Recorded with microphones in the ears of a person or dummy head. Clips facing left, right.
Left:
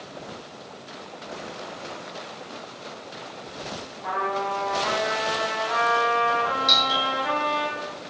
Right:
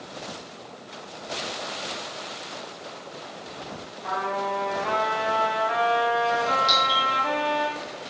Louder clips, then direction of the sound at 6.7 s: Even; 5° right (ahead or behind).